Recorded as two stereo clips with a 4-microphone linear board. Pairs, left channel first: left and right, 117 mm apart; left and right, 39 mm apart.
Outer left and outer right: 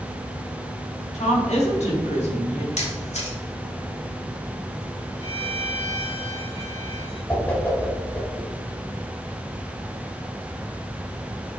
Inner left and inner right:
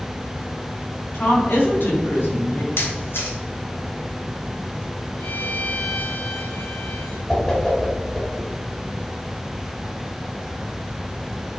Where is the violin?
55° left (ahead or behind), 3 m.